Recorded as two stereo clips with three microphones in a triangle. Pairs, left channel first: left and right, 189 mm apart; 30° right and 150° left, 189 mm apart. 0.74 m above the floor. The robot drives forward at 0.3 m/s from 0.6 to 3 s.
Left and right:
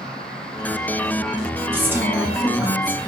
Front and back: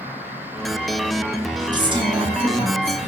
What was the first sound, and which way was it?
A woman speaking, 160° right.